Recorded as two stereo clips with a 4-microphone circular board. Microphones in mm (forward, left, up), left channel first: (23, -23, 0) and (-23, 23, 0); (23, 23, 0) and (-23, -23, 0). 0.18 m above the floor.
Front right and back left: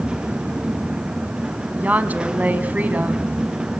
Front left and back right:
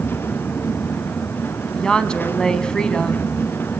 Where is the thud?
I don't hear a thud.